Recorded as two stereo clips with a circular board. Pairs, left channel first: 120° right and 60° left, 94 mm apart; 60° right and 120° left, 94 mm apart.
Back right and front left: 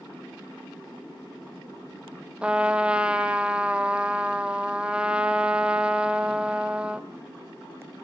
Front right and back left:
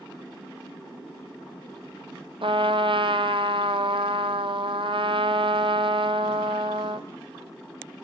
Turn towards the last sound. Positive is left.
turn(degrees=140)